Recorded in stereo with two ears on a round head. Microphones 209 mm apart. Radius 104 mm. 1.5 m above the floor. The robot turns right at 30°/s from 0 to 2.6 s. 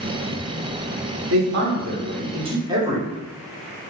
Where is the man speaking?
60° right, 0.9 m; by 3.0 s 20° right, 0.9 m.